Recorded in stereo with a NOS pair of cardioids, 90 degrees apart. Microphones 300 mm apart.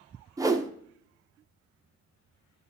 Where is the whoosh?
10° right, 0.6 m.